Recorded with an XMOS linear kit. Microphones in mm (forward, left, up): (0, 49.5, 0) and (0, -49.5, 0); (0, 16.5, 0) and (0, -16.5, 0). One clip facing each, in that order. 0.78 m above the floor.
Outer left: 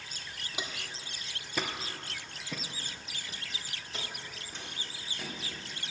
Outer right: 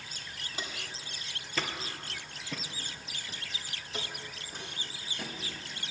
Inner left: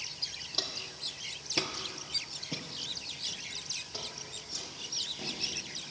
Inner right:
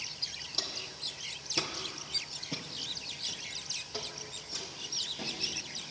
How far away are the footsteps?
About 1.3 m.